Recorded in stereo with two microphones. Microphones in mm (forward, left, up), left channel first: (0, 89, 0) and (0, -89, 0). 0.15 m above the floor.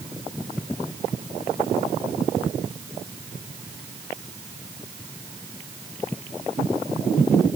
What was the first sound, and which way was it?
Only background noise.